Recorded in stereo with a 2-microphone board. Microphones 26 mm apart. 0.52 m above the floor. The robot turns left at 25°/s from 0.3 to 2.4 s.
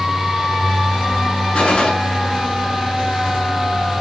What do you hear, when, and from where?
1.5 s a gunshot: 60° left (ahead or behind), 6.5 m; by 1.9 s 50° left (ahead or behind), 6.5 m